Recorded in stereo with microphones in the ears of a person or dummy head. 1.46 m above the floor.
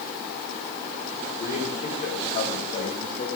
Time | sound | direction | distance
1.4 | a man speaking | 35° left (ahead or behind) | 5 m